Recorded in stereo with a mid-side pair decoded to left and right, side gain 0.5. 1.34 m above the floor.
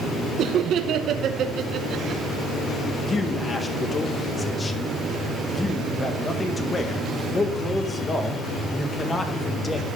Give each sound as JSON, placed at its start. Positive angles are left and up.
{"t": 0.4, "sound": "laughter", "azimuth_deg": -60, "distance_m": 0.9}
{"t": 3.1, "sound": "a man speaking", "azimuth_deg": 25, "distance_m": 1.7}